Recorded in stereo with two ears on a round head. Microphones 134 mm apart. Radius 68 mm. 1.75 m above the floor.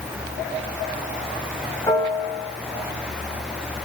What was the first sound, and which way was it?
A piano, 15° left (ahead or behind).